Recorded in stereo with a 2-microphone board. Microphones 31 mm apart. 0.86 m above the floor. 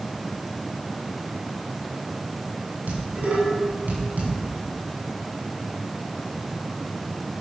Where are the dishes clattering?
65° right (ahead or behind), 5.5 m.